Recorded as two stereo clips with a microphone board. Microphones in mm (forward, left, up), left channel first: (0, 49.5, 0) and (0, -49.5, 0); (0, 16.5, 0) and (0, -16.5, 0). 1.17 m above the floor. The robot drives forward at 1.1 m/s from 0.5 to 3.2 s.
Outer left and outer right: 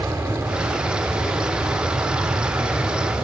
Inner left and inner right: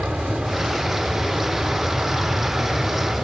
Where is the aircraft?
25° right (ahead or behind); by 3.2 s 20° right (ahead or behind).